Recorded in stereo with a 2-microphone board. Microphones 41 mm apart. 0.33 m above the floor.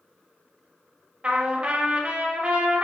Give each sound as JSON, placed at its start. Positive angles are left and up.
{"t": 1.2, "sound": "a trumpet", "side_deg": -30, "distance_m": 0.7}